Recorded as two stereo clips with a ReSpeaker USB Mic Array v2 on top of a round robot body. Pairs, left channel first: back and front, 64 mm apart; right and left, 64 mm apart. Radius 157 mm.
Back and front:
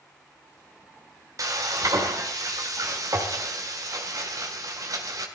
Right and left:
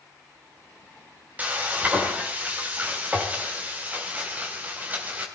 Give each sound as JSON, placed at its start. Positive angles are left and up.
{"t": 1.4, "sound": "frying", "azimuth_deg": 25, "distance_m": 3.0}